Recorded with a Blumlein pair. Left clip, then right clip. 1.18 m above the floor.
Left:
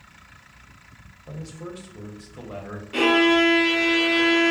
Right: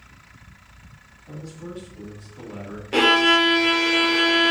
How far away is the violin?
About 0.5 m.